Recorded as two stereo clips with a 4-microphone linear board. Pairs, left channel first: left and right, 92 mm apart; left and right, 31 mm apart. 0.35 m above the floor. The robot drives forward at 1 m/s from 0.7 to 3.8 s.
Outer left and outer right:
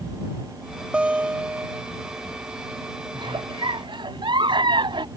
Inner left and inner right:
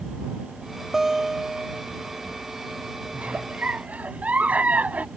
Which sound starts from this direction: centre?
A guitar, at 0.9 s.